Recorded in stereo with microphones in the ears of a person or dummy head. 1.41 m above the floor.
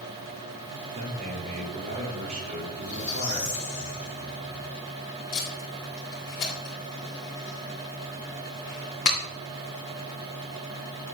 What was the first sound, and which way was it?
A man speaking, 40° right (ahead or behind).